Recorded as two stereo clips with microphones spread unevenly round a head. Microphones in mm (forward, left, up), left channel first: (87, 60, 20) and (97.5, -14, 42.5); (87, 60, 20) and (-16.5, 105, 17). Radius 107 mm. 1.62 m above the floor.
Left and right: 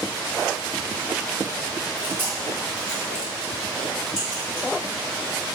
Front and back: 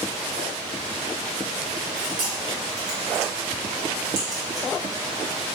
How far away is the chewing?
About 1.6 m.